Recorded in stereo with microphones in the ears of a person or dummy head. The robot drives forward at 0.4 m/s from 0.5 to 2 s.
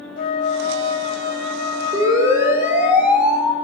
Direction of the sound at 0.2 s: 55° left (ahead or behind).